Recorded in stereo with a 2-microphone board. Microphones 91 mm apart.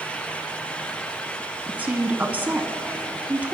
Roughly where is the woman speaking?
Centre.